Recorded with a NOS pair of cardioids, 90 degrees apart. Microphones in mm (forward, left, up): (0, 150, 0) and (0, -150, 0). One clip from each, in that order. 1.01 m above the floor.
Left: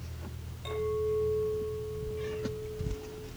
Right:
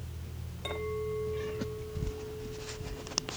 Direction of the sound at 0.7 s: 45° right.